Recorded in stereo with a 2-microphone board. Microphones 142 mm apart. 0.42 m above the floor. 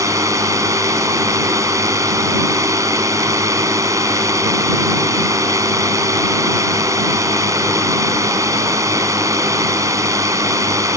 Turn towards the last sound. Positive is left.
turn(degrees=-20)  # may be behind; listen again after turning